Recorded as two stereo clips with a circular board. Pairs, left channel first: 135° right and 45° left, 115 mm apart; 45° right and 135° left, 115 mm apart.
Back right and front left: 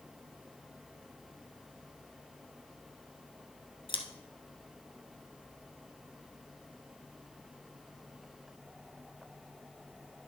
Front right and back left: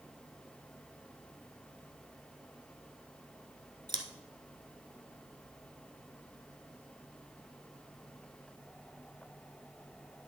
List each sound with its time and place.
3.9 s scissors: 175° right, 1.0 m